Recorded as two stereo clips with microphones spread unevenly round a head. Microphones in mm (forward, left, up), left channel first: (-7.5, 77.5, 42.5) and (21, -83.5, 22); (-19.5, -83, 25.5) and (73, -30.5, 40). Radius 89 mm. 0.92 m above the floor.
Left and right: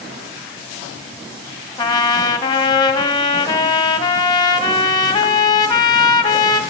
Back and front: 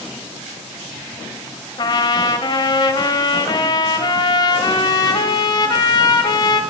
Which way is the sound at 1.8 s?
165° left.